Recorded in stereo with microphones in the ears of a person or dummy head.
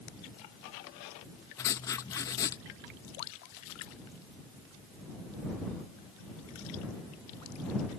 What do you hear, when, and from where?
1.6 s writing: 10° left (ahead or behind)